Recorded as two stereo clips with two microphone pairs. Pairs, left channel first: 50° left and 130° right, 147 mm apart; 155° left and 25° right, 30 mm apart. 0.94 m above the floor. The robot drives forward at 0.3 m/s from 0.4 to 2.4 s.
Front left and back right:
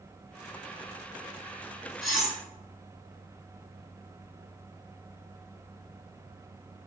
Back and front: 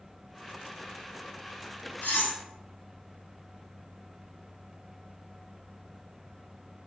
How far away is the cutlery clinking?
About 0.7 m.